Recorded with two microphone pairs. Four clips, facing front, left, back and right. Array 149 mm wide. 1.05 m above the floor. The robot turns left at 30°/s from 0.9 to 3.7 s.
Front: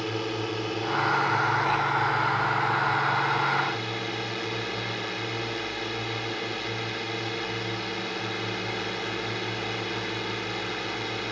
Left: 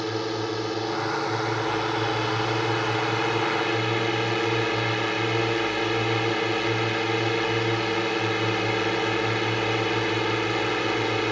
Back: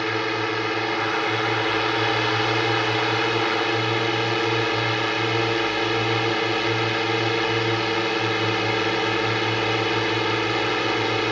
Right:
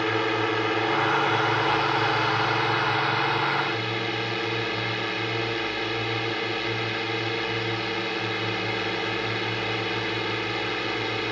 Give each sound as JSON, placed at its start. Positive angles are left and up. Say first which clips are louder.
{"t": 0.0, "sound": "a drone", "louder": "right 3 dB, back 5 dB", "azimuth_deg": -135}